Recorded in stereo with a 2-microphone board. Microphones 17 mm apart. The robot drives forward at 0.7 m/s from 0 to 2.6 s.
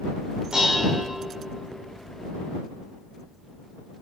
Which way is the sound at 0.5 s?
55° right (ahead or behind).